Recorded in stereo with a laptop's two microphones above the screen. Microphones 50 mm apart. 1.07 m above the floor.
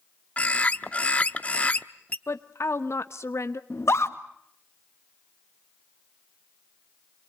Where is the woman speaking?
70° left (ahead or behind), 0.9 m.